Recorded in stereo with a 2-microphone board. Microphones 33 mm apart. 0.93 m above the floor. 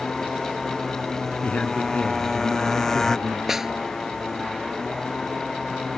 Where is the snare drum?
10° right (ahead or behind).